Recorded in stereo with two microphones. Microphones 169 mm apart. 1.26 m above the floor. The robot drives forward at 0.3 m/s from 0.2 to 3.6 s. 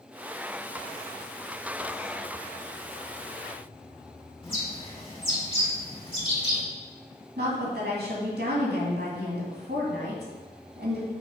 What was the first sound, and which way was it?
A bird, 30° left (ahead or behind).